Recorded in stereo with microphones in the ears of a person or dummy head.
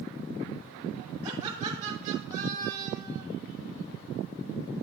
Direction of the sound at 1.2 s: 20° right (ahead or behind).